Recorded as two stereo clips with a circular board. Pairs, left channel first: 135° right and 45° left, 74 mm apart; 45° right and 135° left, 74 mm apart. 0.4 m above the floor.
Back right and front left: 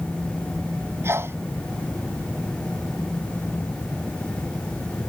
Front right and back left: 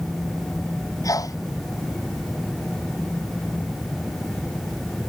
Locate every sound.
1.0 s a sneeze: 10° right